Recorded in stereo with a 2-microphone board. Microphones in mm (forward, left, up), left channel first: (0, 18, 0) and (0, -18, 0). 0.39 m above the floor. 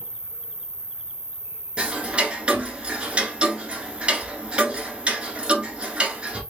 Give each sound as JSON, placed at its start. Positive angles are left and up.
{"t": 0.0, "sound": "an insect", "side_deg": 25, "distance_m": 1.5}
{"t": 1.8, "sound": "ticking", "side_deg": -35, "distance_m": 1.2}